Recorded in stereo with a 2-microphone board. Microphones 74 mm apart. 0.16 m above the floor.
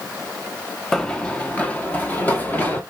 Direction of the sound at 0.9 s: 5° left (ahead or behind).